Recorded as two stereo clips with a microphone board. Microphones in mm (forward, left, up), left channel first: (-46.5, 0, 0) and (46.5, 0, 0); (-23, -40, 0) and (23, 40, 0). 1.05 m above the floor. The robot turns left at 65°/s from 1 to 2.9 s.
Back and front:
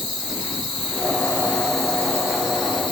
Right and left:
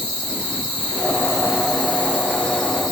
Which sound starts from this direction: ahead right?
An insect, at 0.0 s.